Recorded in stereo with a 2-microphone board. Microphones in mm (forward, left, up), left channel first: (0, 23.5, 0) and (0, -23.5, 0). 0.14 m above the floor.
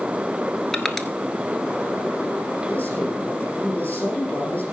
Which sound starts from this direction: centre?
Crushing, at 0.7 s.